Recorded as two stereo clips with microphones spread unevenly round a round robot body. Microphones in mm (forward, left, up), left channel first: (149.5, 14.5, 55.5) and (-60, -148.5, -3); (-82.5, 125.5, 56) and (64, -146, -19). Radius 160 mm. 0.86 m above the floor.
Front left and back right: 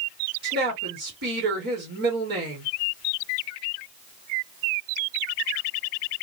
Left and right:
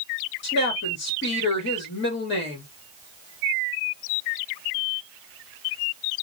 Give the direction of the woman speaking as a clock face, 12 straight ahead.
6 o'clock.